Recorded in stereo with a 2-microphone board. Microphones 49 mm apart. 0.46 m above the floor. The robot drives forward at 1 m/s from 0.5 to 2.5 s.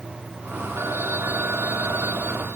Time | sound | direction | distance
0.8 | a phone ringing | 60° right (ahead or behind) | ?